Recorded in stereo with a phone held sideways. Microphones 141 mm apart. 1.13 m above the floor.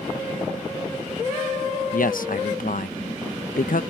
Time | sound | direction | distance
1.9 | a man speaking | 75° left (ahead or behind) | ?